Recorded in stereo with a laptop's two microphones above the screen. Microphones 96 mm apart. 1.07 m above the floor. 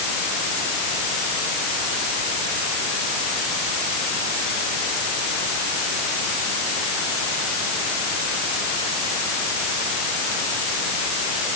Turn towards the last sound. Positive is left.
No sound to turn to.